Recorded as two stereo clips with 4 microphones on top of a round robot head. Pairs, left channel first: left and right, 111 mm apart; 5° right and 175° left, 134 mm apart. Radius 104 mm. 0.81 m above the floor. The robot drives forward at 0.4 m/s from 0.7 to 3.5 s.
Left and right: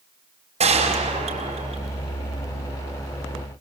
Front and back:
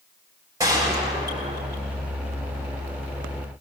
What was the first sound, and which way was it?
A gunshot, 115° right.